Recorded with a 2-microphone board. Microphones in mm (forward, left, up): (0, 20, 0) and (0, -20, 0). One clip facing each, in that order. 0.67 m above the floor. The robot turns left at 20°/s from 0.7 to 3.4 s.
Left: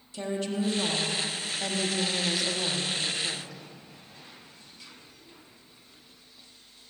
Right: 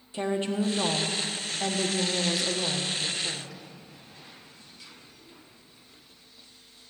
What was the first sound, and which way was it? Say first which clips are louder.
A woman speaking: right 3 dB; 135° right.